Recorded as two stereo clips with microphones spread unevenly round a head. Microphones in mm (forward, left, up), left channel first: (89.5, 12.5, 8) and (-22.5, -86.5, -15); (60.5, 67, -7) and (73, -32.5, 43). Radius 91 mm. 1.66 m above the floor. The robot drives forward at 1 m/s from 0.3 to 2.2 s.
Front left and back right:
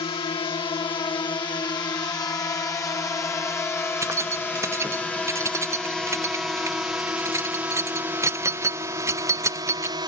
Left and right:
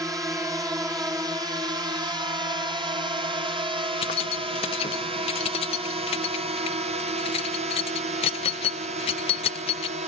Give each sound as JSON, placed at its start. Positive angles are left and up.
{"t": 0.0, "sound": "a drone", "azimuth_deg": -15}
{"t": 4.0, "sound": "keys jangling", "azimuth_deg": 150}